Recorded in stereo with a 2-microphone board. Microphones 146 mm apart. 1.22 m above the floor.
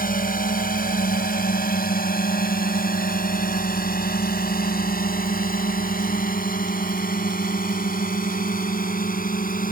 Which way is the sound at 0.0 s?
75° left (ahead or behind).